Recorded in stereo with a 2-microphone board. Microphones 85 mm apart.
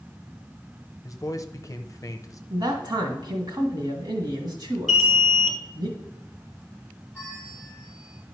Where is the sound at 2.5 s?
65° right (ahead or behind), 1.7 m.